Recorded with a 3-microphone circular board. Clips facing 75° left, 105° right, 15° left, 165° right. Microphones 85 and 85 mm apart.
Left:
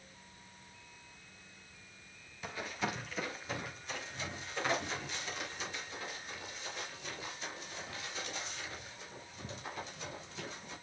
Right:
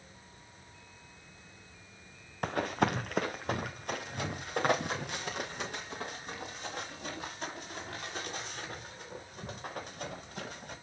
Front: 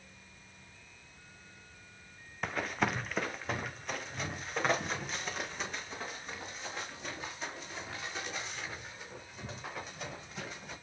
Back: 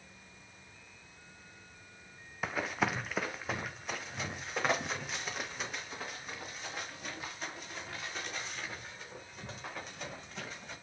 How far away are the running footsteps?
About 1.0 m.